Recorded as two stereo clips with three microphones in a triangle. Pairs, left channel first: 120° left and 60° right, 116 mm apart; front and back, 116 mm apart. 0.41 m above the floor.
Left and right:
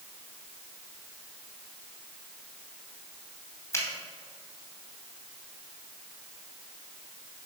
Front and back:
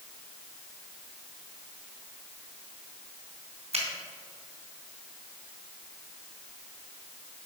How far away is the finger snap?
About 2.5 m.